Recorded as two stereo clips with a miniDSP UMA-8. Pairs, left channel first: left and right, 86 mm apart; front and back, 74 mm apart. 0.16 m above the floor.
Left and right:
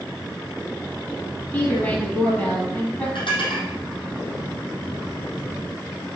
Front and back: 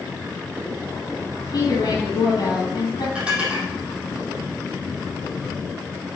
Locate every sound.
1.5 s a woman speaking: 25° left, 4.5 m
3.1 s dishes clattering: 100° left, 4 m